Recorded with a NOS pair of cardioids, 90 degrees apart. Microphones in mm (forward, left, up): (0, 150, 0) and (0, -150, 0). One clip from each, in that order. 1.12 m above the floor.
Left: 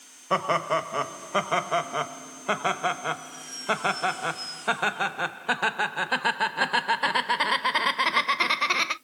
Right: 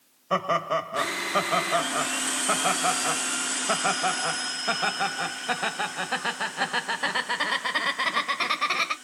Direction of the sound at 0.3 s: 15° left.